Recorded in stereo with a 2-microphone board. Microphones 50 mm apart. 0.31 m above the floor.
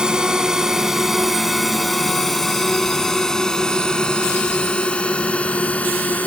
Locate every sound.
0.0 s a drone: 15° right (ahead or behind); by 6.3 s 30° left (ahead or behind)